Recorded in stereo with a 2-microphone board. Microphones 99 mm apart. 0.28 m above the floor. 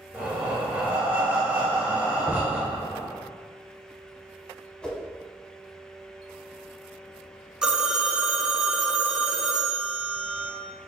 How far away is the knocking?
About 0.8 m.